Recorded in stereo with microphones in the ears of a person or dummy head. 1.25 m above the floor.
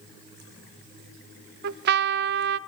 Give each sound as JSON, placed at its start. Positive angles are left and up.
{"t": 1.6, "sound": "a trumpet", "side_deg": -60, "distance_m": 0.9}